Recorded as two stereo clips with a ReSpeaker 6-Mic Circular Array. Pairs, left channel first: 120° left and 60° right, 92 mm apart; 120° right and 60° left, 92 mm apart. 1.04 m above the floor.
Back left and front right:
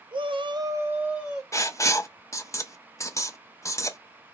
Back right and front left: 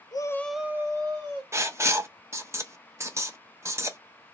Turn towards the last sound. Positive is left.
turn(degrees=95)